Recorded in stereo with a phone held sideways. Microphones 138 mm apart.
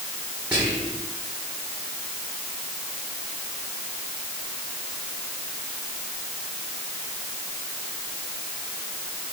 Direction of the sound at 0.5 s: 10° right (ahead or behind).